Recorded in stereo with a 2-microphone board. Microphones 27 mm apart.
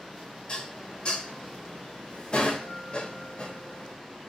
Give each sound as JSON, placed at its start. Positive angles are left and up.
{"t": 0.5, "sound": "dishes clattering", "side_deg": 45, "distance_m": 1.8}